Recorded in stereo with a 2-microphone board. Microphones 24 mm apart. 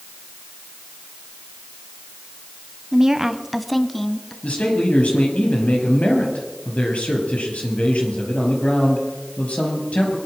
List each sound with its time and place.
2.9 s a woman speaking: 20° right (ahead or behind), 1.1 m; by 4.3 s 15° left (ahead or behind), 1.9 m
4.4 s a man speaking: 75° left (ahead or behind), 5 m